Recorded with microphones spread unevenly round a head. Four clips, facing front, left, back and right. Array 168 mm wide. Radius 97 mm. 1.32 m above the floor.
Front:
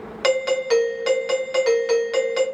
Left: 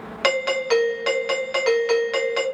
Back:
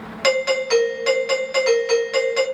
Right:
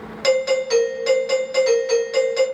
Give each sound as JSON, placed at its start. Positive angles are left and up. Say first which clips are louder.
{"t": 0.2, "sound": "a doorbell", "louder": "right 3 dB, even", "azimuth_deg": 100, "distance_m": 0.8}